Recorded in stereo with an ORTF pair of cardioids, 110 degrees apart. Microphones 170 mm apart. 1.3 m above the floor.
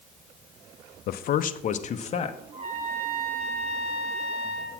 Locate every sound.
1.1 s a man speaking: 65° left, 0.7 m; by 2.4 s 35° left, 1.4 m
2.5 s a trumpet: 35° right, 5.5 m